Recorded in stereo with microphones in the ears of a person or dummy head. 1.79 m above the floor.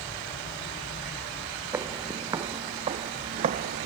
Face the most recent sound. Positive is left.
turn(degrees=-45)  # may be behind; listen again after turning